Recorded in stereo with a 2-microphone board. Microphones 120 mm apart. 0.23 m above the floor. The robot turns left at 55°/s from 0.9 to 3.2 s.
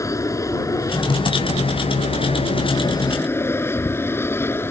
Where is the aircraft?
25° left (ahead or behind); by 4.7 s 20° left (ahead or behind).